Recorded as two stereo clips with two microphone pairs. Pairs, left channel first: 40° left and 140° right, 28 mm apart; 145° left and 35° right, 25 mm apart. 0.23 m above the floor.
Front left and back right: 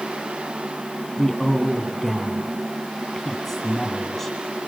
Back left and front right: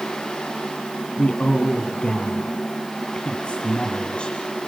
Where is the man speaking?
120° left, 2 m.